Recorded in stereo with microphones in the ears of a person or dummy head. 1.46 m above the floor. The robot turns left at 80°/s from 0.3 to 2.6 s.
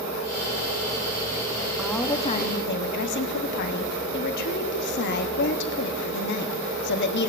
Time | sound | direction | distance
1.8 | a woman speaking | 175° right | 0.9 m